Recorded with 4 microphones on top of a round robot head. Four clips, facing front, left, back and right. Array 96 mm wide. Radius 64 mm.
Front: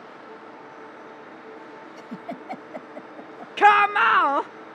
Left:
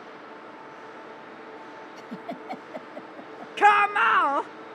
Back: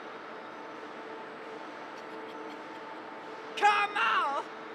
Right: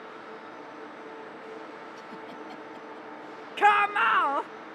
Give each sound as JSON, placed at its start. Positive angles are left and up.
{"t": 2.0, "sound": "a giggle", "azimuth_deg": 35}
{"t": 3.6, "sound": "a shout", "azimuth_deg": 10}